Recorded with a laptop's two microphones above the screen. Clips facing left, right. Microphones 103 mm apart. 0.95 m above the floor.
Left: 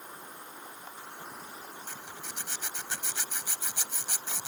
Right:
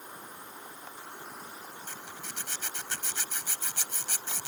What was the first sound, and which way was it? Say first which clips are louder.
A zipper: even; 10° left (ahead or behind).